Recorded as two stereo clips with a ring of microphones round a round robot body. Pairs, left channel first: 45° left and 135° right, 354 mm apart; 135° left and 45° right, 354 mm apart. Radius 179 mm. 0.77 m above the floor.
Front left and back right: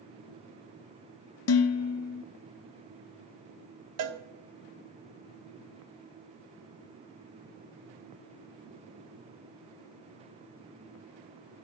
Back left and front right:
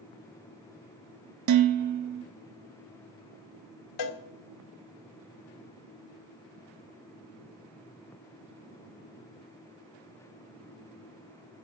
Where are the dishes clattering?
5° right, 0.7 m.